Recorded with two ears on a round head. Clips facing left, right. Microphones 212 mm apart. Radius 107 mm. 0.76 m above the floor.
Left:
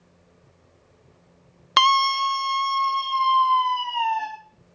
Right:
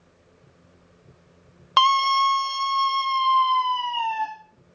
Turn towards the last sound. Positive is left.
turn(degrees=-35)  # may be behind; listen again after turning